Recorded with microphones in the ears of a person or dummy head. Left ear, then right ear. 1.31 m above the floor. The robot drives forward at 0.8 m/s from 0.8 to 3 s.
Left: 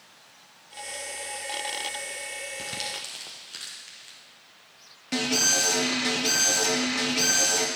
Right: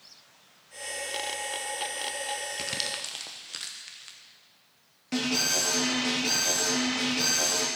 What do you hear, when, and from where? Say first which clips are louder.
2.6 s crumpling: right 1 dB; 25° right (ahead or behind), 0.7 m; by 4.2 s 20° right (ahead or behind), 1.0 m
5.1 s an alarm: left 3 dB; 10° left (ahead or behind), 1.5 m